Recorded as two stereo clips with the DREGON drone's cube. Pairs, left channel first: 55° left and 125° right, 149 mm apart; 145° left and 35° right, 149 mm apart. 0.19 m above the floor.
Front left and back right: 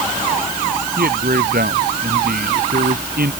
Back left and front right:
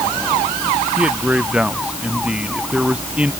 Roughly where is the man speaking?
Behind right.